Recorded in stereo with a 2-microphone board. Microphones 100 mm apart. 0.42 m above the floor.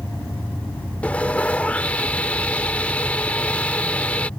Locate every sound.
1.0 s sawing: 15° left (ahead or behind)